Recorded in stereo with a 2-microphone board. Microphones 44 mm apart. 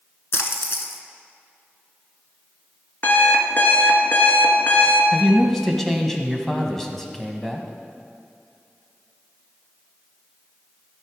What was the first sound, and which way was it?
A splash, 65° left (ahead or behind).